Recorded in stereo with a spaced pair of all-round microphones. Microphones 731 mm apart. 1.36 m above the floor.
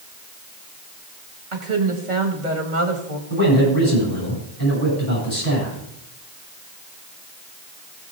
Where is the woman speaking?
85° right, 2 m.